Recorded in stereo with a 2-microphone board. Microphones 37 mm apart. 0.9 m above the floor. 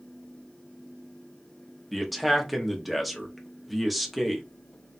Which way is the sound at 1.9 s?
Centre (ahead or behind).